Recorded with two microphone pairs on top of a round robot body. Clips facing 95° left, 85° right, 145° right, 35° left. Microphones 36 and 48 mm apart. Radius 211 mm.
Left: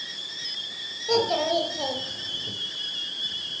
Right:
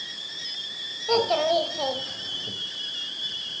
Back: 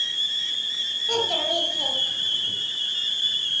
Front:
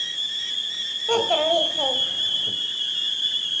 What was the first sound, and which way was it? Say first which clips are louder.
A child speaking: right 1 dB, front 6 dB; 25° right.